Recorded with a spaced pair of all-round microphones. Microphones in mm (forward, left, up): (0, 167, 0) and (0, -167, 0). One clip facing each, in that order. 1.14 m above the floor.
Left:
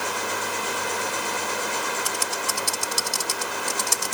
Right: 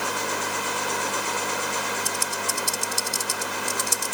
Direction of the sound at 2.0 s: 80° left.